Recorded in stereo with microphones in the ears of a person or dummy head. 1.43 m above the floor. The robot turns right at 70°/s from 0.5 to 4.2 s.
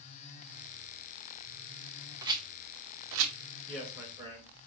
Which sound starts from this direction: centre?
A rattle, at 2.2 s.